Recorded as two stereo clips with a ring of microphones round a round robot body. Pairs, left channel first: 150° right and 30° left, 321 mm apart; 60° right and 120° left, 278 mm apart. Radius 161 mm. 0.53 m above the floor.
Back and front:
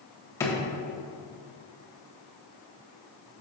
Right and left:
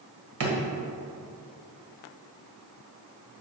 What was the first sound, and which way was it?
A drawer, 130° left.